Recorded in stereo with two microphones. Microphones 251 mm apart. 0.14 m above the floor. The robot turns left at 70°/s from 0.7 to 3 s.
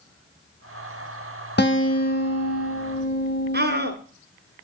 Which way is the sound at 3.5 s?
40° right (ahead or behind).